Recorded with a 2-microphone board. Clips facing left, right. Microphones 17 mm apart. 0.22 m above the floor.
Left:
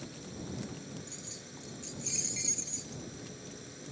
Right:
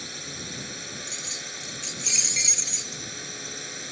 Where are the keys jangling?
50° right (ahead or behind).